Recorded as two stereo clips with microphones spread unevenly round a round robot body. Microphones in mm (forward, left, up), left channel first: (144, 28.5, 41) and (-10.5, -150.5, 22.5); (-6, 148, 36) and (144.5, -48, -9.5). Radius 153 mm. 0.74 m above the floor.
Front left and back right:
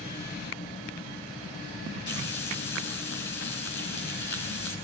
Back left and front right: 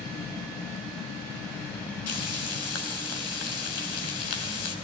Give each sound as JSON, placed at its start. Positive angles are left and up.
{"t": 2.1, "sound": "frying", "azimuth_deg": 105, "distance_m": 4.5}